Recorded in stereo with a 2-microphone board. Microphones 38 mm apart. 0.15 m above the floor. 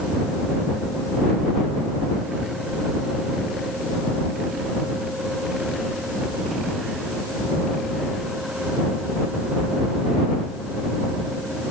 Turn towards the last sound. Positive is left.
No sound to turn to.